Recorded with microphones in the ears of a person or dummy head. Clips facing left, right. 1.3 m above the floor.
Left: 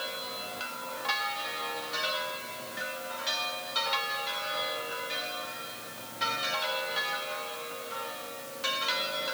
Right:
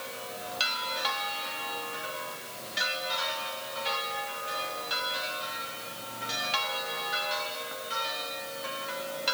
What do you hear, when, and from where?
Only background noise.